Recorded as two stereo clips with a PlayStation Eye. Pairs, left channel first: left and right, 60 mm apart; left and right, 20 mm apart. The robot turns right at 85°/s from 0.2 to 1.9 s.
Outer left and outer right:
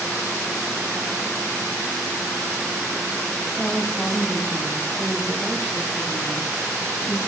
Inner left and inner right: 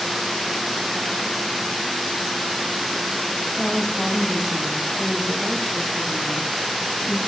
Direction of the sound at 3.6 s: 5° right (ahead or behind).